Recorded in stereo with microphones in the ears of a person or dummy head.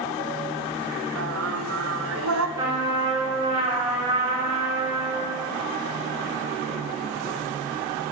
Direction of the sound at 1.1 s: 75° right (ahead or behind).